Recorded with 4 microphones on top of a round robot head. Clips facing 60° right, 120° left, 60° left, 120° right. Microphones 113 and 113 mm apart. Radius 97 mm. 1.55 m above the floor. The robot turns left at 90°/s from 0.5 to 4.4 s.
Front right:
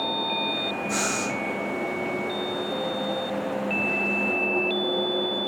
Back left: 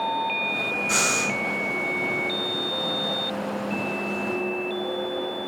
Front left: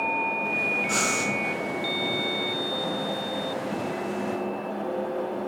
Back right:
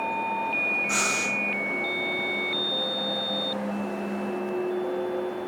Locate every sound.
0.9 s breathing: 130° left, 4 m; by 1.3 s 90° left, 4 m